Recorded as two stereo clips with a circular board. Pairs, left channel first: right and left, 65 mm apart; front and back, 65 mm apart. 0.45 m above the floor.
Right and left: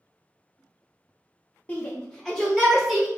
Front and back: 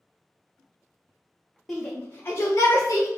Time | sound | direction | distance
1.7 | a shout | 75° right | 0.8 m